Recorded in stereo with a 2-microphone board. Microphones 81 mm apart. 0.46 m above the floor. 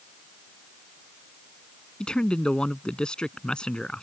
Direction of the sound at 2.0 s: 10° left (ahead or behind).